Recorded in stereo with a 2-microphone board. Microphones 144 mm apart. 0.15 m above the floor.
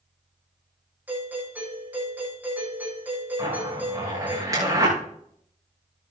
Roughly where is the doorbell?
Centre.